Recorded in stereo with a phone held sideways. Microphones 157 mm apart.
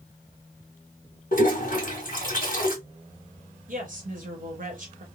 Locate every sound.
1.3 s a toilet flushing: 60° left (ahead or behind), 1.3 m
3.7 s a woman speaking: 60° right (ahead or behind), 1.0 m